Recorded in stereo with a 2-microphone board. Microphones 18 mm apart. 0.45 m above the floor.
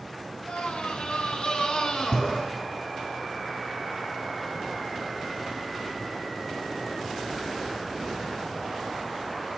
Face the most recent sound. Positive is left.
turn(degrees=45)  # may be behind; listen again after turning